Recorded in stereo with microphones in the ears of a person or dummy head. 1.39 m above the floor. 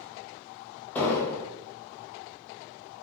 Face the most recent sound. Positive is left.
turn(degrees=10)  # may be behind; listen again after turning